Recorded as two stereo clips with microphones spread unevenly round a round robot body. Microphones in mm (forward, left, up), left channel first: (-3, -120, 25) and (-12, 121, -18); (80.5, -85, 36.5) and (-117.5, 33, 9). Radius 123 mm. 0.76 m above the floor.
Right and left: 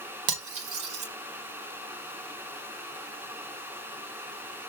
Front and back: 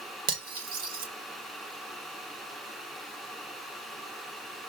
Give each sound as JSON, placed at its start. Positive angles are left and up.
{"t": 0.3, "sound": "cutlery clinking", "azimuth_deg": 95, "distance_m": 1.8}